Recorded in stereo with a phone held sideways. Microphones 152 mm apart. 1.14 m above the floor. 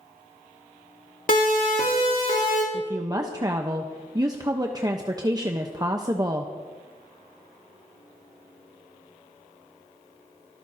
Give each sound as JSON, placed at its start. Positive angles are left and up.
{"t": 1.3, "sound": "a siren", "side_deg": 65, "distance_m": 2.5}
{"t": 2.7, "sound": "a woman speaking", "side_deg": -25, "distance_m": 0.9}